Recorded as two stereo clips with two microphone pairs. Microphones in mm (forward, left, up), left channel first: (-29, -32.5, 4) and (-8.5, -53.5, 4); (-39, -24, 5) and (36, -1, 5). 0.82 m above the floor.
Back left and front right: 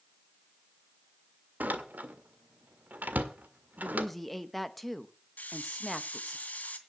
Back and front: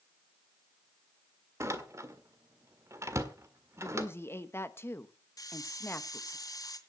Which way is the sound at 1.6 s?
35° right.